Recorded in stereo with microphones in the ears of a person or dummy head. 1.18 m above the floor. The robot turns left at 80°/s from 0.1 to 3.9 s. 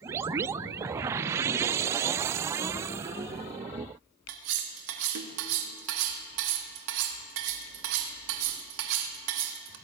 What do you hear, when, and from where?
4.3 s cutlery clinking: 65° right (ahead or behind), 1.0 m